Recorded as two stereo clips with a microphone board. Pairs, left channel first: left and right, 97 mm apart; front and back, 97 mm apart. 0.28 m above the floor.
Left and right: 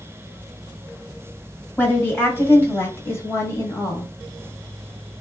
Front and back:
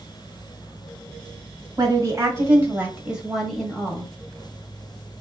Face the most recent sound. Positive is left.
turn(degrees=65)